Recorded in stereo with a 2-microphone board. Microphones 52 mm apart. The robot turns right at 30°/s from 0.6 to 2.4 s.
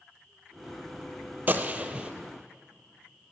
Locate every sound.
1.5 s a gunshot: 30° right (ahead or behind), 0.7 m; by 2.1 s 15° right (ahead or behind), 0.7 m